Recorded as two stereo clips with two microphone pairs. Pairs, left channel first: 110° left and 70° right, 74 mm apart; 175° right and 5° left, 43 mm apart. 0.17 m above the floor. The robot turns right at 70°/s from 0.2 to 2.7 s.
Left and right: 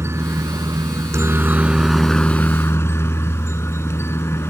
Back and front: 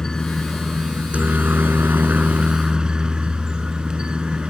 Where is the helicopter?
105° right; by 4.5 s 70° left.